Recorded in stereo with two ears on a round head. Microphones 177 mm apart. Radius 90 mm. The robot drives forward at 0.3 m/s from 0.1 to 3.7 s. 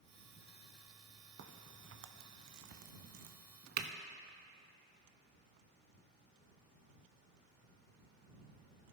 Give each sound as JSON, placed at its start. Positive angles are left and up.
{"t": 1.4, "sound": "a crack", "side_deg": -55, "distance_m": 0.7}